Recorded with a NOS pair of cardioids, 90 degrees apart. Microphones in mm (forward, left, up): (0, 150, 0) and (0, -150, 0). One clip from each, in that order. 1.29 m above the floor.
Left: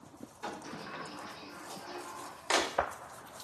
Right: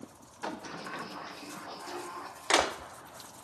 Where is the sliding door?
20° right, 1.1 m.